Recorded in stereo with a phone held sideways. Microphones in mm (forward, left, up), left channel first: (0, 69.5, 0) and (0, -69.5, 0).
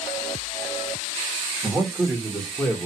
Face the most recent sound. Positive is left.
turn(degrees=20)  # may be behind; listen again after turning